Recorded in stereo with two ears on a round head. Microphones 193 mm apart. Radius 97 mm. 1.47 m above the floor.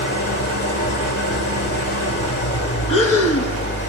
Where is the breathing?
70° left (ahead or behind), 1.7 m.